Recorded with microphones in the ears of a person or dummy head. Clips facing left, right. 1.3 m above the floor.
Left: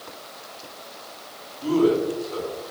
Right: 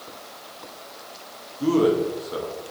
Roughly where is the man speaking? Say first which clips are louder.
Even; right.